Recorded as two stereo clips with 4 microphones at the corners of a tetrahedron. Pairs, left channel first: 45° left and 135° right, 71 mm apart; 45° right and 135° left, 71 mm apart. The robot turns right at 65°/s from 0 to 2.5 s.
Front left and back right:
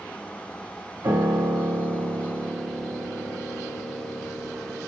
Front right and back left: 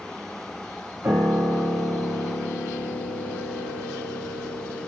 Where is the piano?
170° right, 1.6 m; by 4.9 s 75° right, 1.6 m.